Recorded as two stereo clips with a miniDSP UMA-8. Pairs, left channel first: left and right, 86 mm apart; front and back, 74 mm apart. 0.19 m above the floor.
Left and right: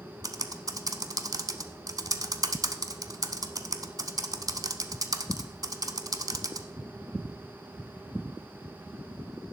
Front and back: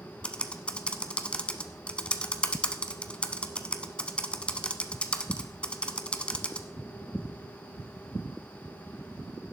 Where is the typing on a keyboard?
70° right, 0.8 m.